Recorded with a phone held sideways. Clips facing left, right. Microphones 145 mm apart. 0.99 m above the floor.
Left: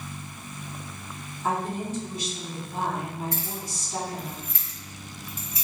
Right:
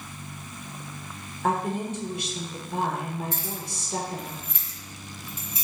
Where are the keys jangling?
25° right (ahead or behind), 1.5 m.